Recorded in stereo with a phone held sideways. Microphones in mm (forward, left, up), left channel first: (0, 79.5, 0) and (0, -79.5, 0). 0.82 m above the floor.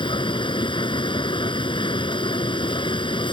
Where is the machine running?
30° left (ahead or behind).